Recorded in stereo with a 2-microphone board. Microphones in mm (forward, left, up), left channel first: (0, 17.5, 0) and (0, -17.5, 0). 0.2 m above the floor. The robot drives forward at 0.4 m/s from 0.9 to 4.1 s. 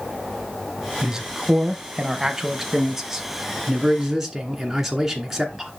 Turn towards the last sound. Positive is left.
turn(degrees=-10)  # may be behind; listen again after turning